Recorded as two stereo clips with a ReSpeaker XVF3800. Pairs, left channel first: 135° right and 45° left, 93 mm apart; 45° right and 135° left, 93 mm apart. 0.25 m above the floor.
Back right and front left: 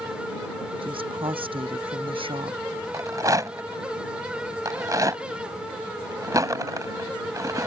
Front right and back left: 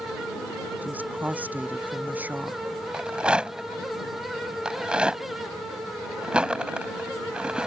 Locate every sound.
0.8 s a woman speaking: 65° left
2.9 s a rattle: 65° left